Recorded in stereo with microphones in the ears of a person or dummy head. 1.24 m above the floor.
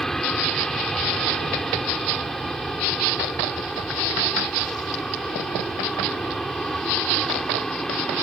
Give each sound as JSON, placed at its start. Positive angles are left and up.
{"t": 0.0, "sound": "an aircraft", "side_deg": 0}